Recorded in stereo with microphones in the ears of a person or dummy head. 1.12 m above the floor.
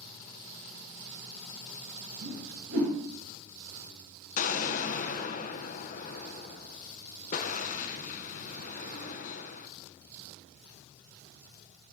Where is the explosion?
40° left (ahead or behind), 0.7 m.